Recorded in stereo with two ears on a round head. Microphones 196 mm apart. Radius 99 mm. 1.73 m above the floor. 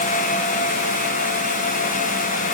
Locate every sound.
Only background noise.